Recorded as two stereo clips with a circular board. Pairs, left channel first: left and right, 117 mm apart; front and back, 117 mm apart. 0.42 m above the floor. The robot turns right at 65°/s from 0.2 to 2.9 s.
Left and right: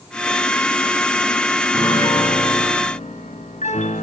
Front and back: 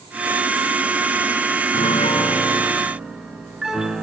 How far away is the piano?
About 2.0 m.